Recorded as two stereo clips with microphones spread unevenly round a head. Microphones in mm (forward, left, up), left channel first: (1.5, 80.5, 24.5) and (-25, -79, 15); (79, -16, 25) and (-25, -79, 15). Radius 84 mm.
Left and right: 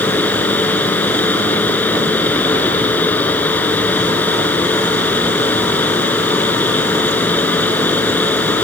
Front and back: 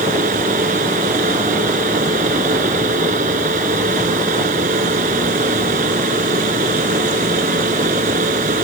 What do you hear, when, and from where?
0.0 s a fan: 160° left